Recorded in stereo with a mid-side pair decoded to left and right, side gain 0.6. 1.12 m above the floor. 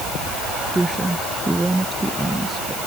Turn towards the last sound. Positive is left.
turn(degrees=-10)